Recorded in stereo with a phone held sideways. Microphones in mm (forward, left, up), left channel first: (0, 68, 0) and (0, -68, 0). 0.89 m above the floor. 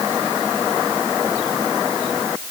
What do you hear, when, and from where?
Only background noise.